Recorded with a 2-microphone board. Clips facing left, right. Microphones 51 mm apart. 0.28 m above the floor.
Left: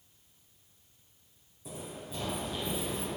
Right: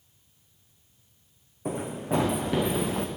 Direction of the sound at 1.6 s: 60° right (ahead or behind).